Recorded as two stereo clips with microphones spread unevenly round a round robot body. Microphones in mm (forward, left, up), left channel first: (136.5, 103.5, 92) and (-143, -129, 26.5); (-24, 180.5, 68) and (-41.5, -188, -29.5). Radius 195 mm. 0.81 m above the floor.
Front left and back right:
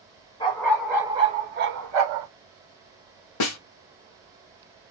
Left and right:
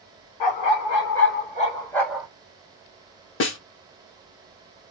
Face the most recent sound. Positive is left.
turn(degrees=60)